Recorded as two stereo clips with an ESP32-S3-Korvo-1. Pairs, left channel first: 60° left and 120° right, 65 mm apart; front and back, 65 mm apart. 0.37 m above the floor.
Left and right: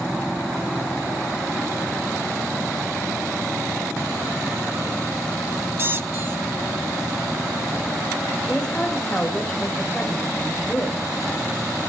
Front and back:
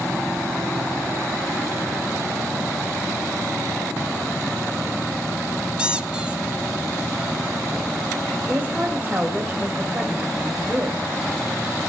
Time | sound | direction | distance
5.8 | a squeak | 115° right | 0.6 m
8.4 | a woman speaking | 135° left | 1.6 m